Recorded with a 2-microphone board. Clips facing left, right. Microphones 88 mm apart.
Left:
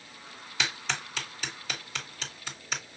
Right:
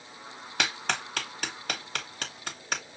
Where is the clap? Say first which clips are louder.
Right 3 dB; 60° right (ahead or behind), 1.7 m.